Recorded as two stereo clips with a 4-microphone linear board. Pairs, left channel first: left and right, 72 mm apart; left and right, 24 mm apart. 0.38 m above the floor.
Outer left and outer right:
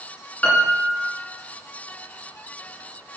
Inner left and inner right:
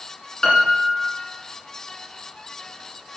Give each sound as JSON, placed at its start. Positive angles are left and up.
{"t": 0.4, "sound": "a piano", "side_deg": 20, "distance_m": 1.9}